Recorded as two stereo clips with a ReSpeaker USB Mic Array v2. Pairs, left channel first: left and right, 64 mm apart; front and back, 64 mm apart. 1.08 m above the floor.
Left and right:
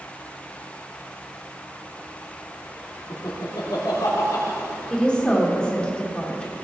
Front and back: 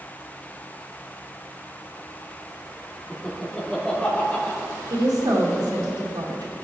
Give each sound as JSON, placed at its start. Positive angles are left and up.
{"t": 3.1, "sound": "laughter", "azimuth_deg": 85, "distance_m": 2.5}
{"t": 4.9, "sound": "a woman speaking", "azimuth_deg": 165, "distance_m": 2.5}